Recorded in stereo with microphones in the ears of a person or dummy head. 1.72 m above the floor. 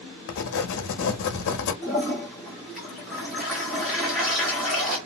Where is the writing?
60° left (ahead or behind), 0.7 m.